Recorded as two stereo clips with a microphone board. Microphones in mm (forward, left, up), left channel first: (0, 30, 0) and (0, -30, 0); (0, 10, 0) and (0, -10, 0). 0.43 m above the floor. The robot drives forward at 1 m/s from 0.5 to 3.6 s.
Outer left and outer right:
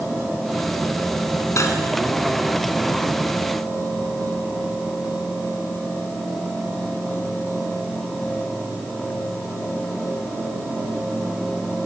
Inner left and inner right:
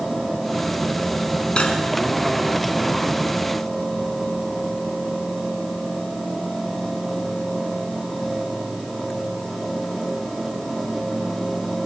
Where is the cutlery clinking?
60° left (ahead or behind), 2.5 m; by 1.8 s 65° left (ahead or behind), 2 m.